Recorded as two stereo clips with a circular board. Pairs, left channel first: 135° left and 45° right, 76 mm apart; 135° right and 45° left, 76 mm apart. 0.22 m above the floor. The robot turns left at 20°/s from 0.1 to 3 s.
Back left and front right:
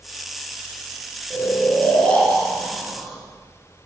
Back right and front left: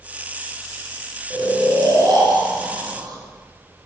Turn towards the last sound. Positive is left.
turn(degrees=40)